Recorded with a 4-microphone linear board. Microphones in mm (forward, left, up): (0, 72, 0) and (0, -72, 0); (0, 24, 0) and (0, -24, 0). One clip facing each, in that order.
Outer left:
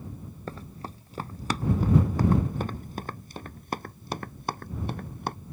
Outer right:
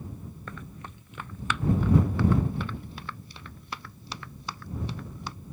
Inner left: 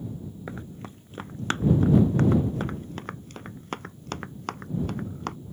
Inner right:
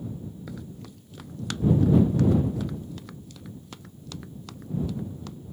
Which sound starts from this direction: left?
Running footsteps, at 0.5 s.